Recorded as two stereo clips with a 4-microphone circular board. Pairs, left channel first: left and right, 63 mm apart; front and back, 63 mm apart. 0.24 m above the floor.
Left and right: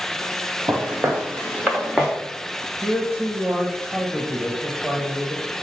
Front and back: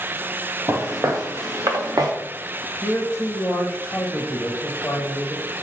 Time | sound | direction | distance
0.7 | footsteps | 140° right | 1.9 m
2.8 | a man speaking | 5° right | 0.9 m